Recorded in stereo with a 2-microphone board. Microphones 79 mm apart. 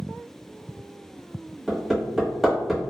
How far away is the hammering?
About 1.1 m.